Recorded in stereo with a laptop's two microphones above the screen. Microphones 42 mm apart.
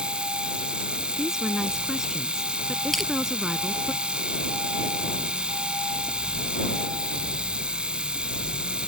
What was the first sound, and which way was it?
A machine running, 20° right (ahead or behind).